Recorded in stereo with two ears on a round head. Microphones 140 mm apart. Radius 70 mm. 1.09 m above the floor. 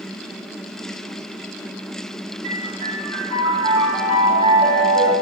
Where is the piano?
50° right (ahead or behind), 1.3 m.